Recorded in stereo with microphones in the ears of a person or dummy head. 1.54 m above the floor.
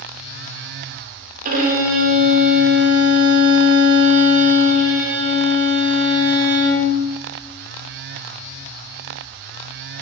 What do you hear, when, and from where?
1.4 s a violin: 45° right (ahead or behind), 1.5 m